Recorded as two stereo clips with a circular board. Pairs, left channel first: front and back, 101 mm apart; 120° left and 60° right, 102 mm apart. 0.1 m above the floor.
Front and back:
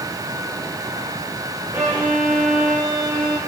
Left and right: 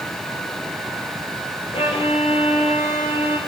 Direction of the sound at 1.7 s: 105° left.